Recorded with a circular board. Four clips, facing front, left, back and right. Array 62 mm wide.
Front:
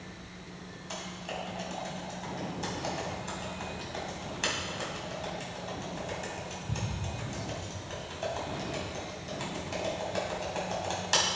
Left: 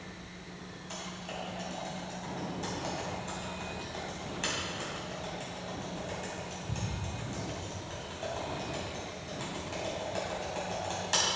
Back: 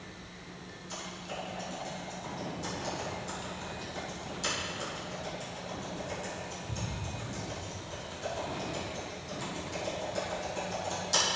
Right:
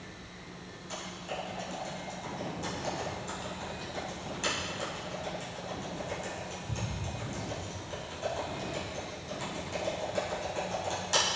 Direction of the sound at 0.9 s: 10° left.